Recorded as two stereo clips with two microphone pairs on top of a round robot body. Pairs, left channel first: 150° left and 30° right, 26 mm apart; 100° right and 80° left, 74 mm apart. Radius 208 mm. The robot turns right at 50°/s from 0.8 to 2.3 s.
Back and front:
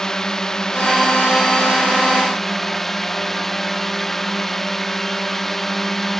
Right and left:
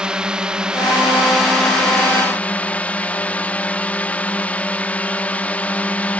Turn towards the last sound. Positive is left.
turn(degrees=-155)